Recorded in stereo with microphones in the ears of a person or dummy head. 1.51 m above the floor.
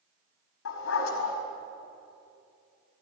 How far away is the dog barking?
About 4.5 m.